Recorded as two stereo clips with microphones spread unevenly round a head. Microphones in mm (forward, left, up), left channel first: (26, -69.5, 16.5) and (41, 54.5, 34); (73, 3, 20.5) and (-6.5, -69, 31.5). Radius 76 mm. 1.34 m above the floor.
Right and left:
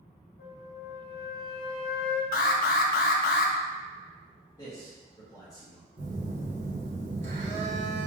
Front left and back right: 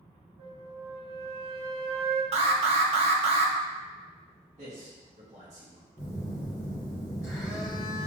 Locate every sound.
0.4 s a flute: 105° right, 0.8 m
2.3 s an alarm: 110° right, 0.7 m
4.6 s a man speaking: 160° right, 1.7 m
6.0 s a phone buzzing: 115° left, 1.3 m